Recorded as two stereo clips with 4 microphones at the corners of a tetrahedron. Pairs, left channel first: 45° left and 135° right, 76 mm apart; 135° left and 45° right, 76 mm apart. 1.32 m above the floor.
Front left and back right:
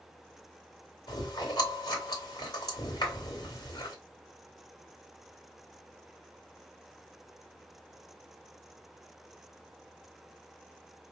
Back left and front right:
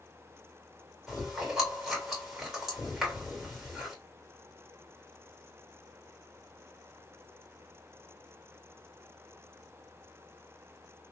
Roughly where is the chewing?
Ahead left.